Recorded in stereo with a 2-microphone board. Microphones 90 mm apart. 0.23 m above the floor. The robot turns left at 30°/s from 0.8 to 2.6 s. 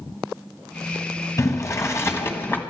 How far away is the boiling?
About 1.3 m.